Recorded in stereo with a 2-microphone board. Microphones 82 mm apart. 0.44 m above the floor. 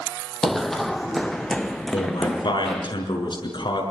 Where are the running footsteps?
Centre (ahead or behind), 0.6 m; by 2.9 s 5° left (ahead or behind), 2.0 m.